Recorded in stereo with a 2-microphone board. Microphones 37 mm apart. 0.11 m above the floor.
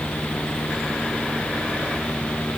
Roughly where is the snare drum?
I don't hear a snare drum.